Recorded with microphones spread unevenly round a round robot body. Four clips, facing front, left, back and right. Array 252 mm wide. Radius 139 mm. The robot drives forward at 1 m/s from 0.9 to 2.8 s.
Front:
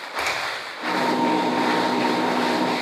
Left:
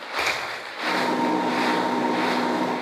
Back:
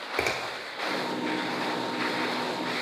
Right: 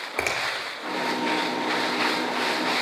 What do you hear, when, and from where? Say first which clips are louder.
0.2 s a finger snap: left 1 dB, front 3 dB; 155° right, 0.9 m